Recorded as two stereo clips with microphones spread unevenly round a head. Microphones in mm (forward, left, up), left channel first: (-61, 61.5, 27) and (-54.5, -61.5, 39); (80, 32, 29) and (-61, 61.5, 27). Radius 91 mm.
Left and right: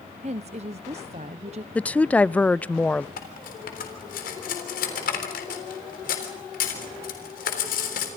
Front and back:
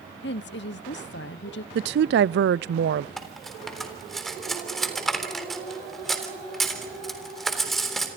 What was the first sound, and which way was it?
A woman speaking, 30° right.